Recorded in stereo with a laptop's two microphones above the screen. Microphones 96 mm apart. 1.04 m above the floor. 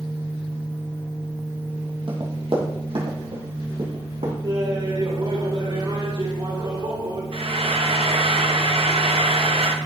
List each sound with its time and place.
2.1 s running footsteps: 55° right (ahead or behind), 1.9 m; by 4.3 s 75° right (ahead or behind), 3.5 m
4.4 s laughter: 50° right (ahead or behind), 4 m
7.3 s frying: 70° right (ahead or behind), 0.6 m